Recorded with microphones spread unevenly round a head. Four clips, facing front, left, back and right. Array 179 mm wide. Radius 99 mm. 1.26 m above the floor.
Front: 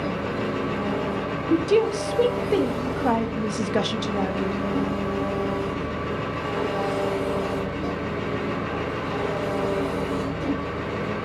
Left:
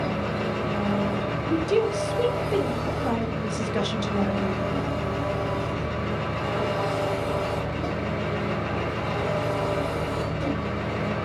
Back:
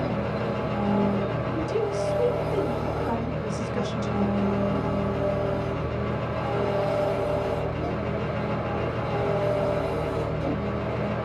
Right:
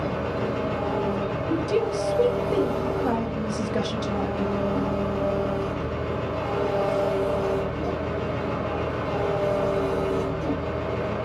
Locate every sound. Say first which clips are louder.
0.0 s an engine running: even, front 1 dB; 95° left, 1.5 m
1.5 s a woman speaking: left 2 dB, front 10 dB; straight ahead, 0.6 m